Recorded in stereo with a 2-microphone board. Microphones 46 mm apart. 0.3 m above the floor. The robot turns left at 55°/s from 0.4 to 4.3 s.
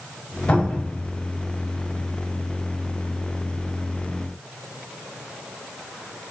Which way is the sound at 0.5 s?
30° left (ahead or behind).